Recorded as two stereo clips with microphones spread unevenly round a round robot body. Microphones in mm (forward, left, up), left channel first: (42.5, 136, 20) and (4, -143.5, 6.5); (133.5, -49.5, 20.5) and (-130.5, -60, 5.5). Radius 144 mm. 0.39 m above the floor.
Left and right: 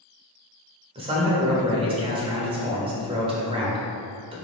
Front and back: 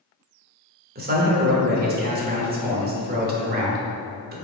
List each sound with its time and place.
0.9 s a man speaking: 155° right, 0.9 m